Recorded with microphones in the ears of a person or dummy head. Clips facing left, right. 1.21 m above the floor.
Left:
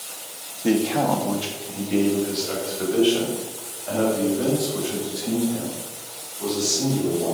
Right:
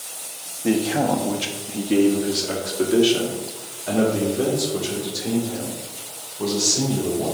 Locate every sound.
0.6 s a man speaking: 10° left (ahead or behind), 0.6 m; by 7.3 s 75° right (ahead or behind), 3.5 m